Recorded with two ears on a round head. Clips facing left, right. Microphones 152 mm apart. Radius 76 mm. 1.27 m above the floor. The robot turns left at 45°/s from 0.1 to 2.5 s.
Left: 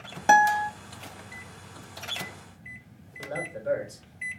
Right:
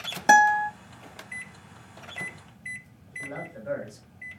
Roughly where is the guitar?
Centre.